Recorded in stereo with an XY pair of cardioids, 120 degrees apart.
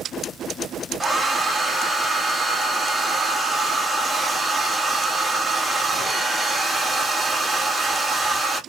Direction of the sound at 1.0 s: 10° right.